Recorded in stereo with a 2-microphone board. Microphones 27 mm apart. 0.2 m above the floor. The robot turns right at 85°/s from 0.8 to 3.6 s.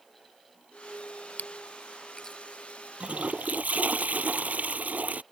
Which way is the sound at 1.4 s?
75° left (ahead or behind).